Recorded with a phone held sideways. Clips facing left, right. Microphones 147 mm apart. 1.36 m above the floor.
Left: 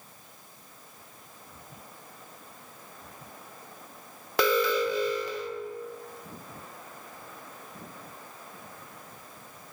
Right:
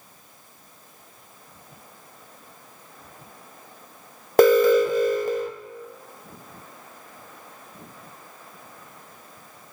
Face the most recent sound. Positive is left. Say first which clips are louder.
# right 10 dB
turn(degrees=-45)  # may be behind; listen again after turning